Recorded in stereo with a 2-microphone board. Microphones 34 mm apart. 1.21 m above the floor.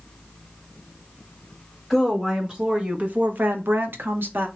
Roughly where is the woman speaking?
Centre.